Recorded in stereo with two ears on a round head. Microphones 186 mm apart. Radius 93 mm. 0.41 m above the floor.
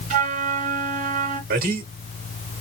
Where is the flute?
35° right (ahead or behind), 1.7 m.